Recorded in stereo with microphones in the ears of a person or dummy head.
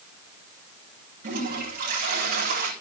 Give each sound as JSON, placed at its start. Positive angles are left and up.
{"t": 1.2, "sound": "a toilet flushing", "side_deg": -50, "distance_m": 7.0}